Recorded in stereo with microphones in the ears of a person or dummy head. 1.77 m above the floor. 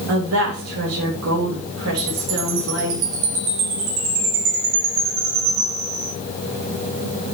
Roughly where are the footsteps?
I don't hear footsteps.